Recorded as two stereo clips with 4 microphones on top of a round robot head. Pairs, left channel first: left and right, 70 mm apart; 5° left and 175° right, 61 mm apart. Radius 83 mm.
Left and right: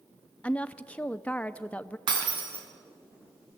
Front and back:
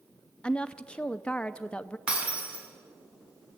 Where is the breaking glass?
100° right, 3.5 m.